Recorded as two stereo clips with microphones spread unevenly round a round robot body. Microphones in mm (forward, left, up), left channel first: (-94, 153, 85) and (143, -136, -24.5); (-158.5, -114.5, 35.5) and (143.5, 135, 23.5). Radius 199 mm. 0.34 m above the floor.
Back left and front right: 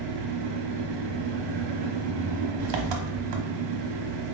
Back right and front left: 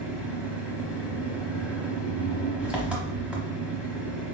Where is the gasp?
I don't hear a gasp.